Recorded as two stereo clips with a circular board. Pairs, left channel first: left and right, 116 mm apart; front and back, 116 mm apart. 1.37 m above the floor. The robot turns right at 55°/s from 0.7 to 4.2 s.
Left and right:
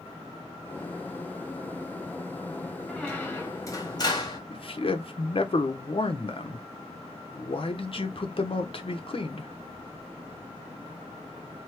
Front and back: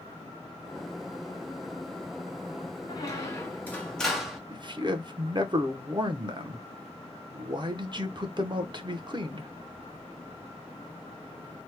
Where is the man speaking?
130° left, 0.7 m.